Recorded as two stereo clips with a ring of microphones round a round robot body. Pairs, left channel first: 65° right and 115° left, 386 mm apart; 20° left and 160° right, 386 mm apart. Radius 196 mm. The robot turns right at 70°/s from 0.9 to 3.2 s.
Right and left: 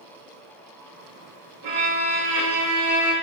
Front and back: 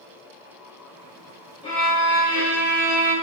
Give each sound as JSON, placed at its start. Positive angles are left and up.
{"t": 1.6, "sound": "a violin", "azimuth_deg": 100, "distance_m": 1.5}